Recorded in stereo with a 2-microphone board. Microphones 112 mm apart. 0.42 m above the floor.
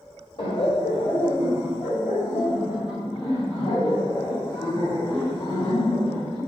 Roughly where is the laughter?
Left.